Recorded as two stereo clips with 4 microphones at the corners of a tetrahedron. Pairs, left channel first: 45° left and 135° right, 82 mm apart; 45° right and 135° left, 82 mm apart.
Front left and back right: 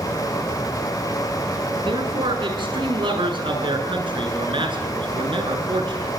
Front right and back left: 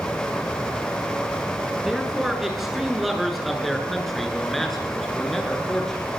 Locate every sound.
1.9 s a man speaking: 140° right, 6.5 m; by 6.1 s 130° right, 8.5 m